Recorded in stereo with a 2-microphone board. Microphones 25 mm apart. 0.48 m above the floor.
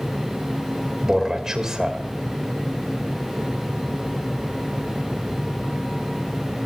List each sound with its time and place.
1.0 s a man speaking: 25° right (ahead or behind), 2 m